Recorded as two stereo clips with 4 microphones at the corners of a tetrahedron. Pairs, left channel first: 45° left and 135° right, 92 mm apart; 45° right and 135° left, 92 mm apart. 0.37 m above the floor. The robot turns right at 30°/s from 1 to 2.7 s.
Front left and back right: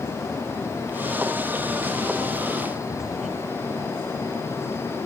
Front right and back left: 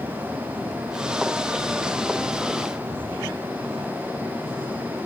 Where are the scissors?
I don't hear scissors.